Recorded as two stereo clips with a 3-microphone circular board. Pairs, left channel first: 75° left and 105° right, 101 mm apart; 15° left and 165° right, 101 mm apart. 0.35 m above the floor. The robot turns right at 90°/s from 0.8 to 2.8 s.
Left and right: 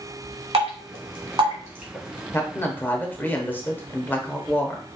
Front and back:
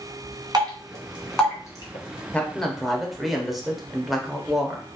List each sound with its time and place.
0.5 s dripping: 120° right, 1.3 m; by 2.2 s 10° left, 1.3 m
2.3 s a man speaking: 70° left, 0.9 m; by 4.9 s 110° left, 0.9 m